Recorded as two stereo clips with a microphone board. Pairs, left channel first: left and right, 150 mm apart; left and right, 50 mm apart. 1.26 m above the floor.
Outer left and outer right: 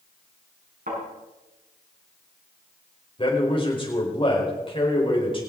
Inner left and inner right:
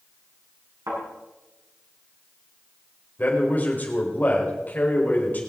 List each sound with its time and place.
0.9 s a thud: 80° right, 7 m
3.2 s a man speaking: 35° left (ahead or behind), 4.5 m